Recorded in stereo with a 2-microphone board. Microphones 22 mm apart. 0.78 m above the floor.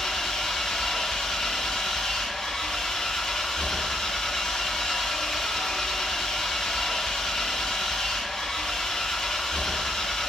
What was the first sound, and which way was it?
An engine running, 30° left (ahead or behind).